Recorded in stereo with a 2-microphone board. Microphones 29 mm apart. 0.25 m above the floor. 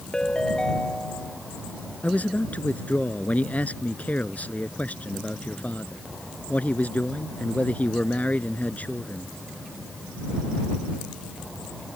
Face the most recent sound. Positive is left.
turn(degrees=55)  # may be behind; listen again after turning